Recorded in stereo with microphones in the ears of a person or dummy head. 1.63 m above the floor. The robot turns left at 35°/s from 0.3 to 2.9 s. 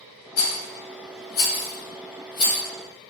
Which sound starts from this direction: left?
A rattle, at 0.4 s.